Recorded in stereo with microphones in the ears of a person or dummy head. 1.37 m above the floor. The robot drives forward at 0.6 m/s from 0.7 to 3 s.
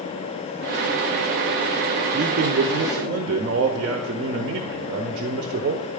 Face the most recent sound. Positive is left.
turn(degrees=-55)  # may be behind; listen again after turning